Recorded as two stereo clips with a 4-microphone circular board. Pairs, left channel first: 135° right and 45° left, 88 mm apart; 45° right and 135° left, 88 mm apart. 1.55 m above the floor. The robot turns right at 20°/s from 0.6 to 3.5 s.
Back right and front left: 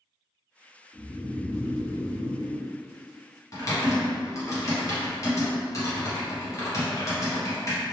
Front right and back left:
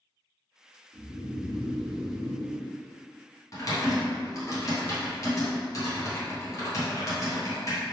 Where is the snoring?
160° left, 1.0 m; by 2.7 s 165° right, 1.0 m.